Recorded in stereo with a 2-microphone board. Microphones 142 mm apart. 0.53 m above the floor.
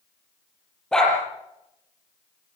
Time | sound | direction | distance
0.9 | a dog barking | 5° left (ahead or behind) | 5.5 m